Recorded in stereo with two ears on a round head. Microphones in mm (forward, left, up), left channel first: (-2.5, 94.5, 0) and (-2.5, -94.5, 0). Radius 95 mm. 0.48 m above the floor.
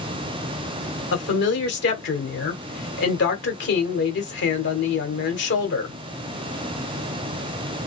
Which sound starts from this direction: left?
A woman speaking, at 1.1 s.